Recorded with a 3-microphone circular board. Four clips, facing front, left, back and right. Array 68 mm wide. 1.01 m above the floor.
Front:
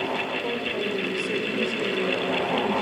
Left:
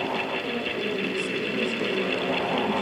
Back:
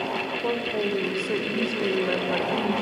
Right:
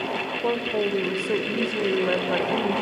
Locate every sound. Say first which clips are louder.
0.4 s a woman speaking: right 4 dB, back 2 dB; 105° right, 4.5 m